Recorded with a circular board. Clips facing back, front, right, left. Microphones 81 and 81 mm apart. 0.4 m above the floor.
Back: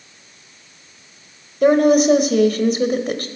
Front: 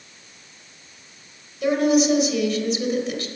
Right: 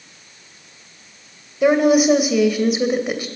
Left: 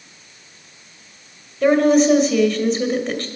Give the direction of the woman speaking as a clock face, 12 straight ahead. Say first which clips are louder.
Back 6 dB, even; 6 o'clock.